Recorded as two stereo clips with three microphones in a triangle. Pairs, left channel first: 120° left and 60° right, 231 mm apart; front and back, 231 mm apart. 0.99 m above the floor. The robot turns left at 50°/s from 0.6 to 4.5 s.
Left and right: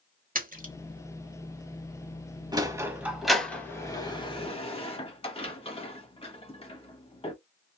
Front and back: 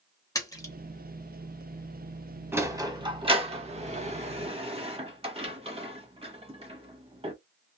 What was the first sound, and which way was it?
A splash, 65° right.